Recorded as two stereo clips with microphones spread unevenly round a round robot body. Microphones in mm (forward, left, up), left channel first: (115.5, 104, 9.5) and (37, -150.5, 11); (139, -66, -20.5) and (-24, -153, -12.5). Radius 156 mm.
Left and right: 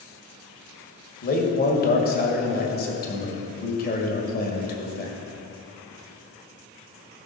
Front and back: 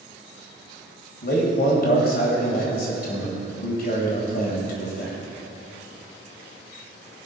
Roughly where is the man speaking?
Ahead left.